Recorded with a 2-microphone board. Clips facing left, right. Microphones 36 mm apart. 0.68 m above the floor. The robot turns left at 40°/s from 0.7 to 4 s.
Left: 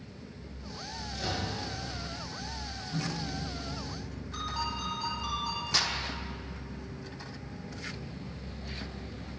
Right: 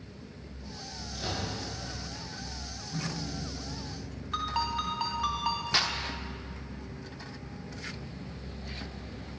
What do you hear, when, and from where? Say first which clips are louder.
1.1 s a microwave: left 1 dB; 5° right (ahead or behind), 6.5 m; by 1.5 s 15° right (ahead or behind), 6.5 m
2.9 s a microwave: left 1 dB; 175° left, 4 m; by 4.2 s 130° left, 4 m
4.3 s a ringtone: right 4 dB; 65° right (ahead or behind), 3 m
5.7 s a clap: even; 25° right (ahead or behind), 1.4 m